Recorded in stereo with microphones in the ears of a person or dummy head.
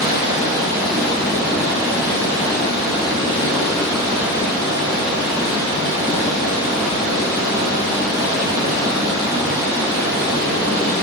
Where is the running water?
15° right (ahead or behind), 1.2 m.